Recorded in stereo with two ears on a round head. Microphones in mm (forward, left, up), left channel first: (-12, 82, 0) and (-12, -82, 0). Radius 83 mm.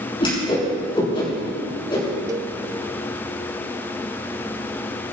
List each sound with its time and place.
0.2 s a whoosh: 30° left (ahead or behind), 6.5 m
2.3 s a cowbell: 20° right (ahead or behind), 0.8 m